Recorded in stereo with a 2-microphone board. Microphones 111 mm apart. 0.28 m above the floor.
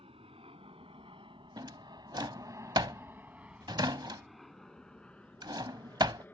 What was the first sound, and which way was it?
An aircraft, 60° right (ahead or behind).